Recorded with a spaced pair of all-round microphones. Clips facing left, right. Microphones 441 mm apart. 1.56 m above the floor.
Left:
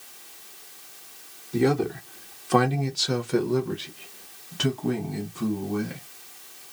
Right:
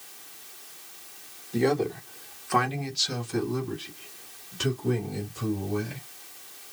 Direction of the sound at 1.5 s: 20° left (ahead or behind).